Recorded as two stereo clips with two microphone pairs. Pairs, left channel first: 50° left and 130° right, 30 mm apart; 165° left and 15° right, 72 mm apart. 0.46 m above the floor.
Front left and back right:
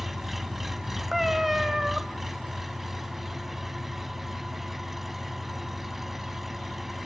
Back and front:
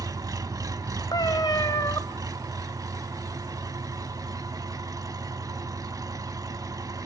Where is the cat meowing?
145° left, 1.0 m.